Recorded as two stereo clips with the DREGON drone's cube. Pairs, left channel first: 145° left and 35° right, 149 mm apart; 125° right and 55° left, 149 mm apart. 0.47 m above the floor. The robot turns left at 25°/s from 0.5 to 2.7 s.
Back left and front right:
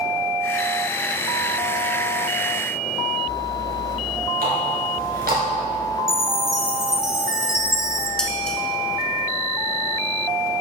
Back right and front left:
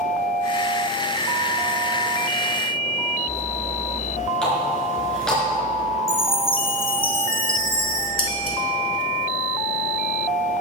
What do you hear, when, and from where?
4.4 s a running tap: 40° right, 3.5 m
6.1 s a chime: 120° right, 1.3 m
8.2 s dishes clattering: 130° right, 1.6 m